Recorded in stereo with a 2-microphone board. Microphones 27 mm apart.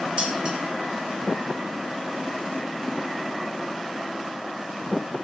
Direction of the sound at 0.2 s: 35° right (ahead or behind).